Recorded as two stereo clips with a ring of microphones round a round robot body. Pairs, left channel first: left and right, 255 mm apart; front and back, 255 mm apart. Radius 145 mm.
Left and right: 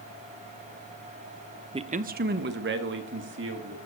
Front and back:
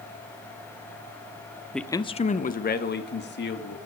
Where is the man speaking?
90° right, 0.6 m; by 3.8 s 45° right, 1.8 m.